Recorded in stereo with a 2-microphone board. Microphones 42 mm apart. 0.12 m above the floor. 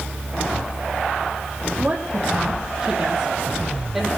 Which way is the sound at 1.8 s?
20° right (ahead or behind).